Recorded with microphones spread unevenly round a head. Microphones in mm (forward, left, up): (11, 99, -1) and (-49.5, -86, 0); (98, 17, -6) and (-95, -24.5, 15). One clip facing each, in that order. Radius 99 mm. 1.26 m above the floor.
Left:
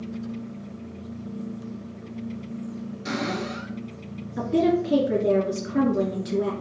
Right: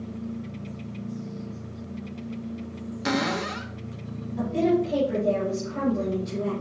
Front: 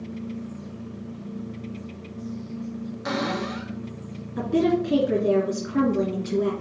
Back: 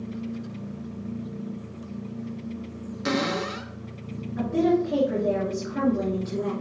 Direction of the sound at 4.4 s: 45° left.